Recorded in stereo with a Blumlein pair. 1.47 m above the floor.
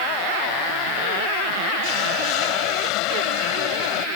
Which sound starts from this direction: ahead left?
A hiss, at 1.8 s.